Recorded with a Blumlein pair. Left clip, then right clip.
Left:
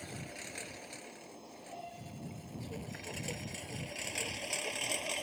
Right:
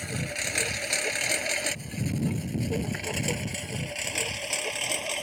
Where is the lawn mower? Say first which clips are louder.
Right 14 dB; 30° right; by 5.2 s 70° right.